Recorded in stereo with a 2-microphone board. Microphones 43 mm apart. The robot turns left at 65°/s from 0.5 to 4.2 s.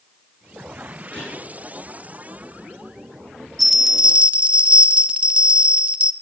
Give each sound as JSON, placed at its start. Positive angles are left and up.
{"t": 1.1, "sound": "a gunshot", "side_deg": 35, "distance_m": 7.5}
{"t": 3.6, "sound": "a bell", "azimuth_deg": 0, "distance_m": 0.6}